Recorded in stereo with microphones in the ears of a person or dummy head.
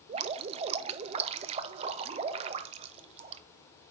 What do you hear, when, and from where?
0.1 s dripping: 35° right (ahead or behind), 0.5 m